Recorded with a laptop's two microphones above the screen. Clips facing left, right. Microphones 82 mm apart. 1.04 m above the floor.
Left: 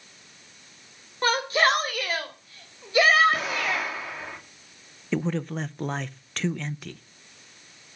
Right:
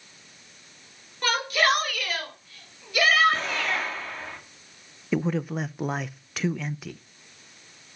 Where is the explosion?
5° left (ahead or behind), 1.8 m.